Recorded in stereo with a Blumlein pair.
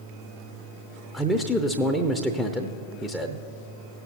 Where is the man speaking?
Straight ahead, 0.7 m.